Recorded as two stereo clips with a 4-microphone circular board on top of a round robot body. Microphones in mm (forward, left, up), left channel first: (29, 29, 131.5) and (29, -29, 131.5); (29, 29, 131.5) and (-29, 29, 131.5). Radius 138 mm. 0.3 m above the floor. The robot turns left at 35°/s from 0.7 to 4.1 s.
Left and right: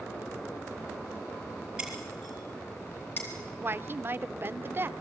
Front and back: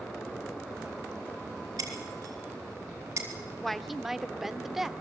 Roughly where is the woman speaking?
Right.